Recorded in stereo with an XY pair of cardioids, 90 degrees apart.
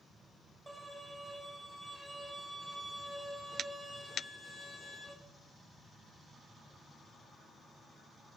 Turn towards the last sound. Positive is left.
turn(degrees=-20)